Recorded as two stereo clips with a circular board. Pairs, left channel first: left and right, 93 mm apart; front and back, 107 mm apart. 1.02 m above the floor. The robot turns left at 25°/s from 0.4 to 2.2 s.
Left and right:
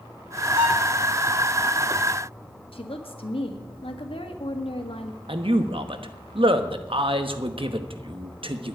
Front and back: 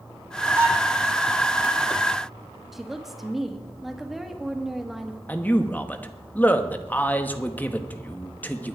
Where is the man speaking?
75° right, 1.1 m.